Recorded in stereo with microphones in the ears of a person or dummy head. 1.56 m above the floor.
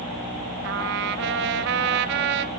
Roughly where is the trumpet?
Right.